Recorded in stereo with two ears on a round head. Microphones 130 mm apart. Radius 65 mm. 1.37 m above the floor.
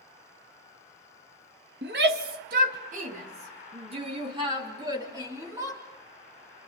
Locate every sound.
1.8 s a shout: 80° right, 2.5 m; by 5.8 s 20° right (ahead or behind), 4.5 m